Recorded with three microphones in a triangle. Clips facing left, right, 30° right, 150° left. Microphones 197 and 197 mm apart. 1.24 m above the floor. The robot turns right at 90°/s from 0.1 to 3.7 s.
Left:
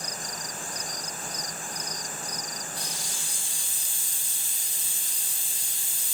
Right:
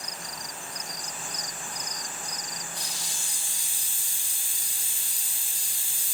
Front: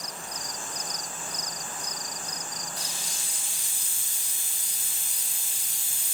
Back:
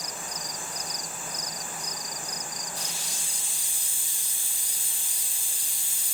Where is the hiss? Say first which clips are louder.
Left 2 dB, back 1 dB; 95° right, 2.5 m; by 6.2 s 10° right, 2.5 m.